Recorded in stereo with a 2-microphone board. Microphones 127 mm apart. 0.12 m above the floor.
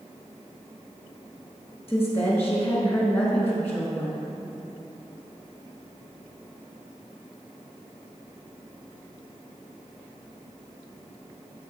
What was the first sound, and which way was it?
A woman speaking, 20° left (ahead or behind).